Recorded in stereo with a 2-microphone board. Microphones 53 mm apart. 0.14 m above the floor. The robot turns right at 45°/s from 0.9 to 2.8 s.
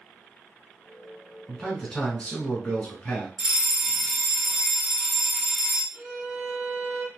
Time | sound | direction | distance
1.5 | a man speaking | 10° left (ahead or behind) | 1.2 m
3.4 | a fire alarm | centre (ahead or behind) | 2.0 m
5.9 | a violin | 30° right (ahead or behind) | 0.8 m